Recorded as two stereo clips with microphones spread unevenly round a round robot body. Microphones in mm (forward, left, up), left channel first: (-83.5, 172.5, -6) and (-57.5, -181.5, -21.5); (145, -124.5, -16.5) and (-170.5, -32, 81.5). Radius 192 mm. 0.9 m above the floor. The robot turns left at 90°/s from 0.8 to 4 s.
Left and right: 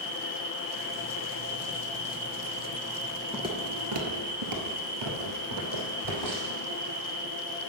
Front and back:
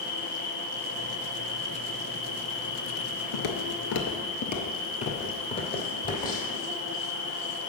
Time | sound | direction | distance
0.0 | an insect | 165° left | 3.5 m
3.3 | footsteps | straight ahead | 1.0 m